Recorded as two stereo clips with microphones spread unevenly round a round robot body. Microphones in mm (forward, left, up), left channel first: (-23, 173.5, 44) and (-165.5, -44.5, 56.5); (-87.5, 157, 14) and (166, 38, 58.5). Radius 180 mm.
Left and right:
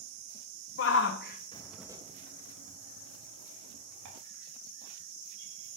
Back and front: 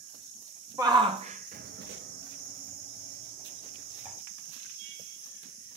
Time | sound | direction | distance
0.8 | a shout | 60° left | 1.1 m